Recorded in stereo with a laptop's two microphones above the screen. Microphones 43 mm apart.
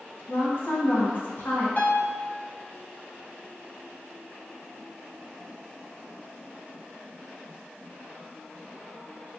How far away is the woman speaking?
About 1.0 m.